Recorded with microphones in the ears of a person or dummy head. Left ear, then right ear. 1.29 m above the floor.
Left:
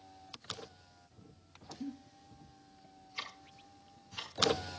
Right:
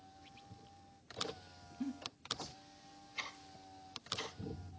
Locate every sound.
1.8 s a giggle: 50° right (ahead or behind), 2 m
3.2 s ticking: 15° left (ahead or behind), 6 m